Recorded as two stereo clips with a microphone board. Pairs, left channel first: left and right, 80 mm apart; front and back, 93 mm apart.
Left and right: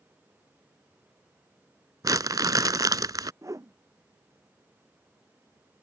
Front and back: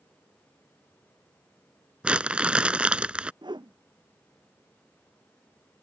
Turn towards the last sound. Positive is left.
turn(degrees=-140)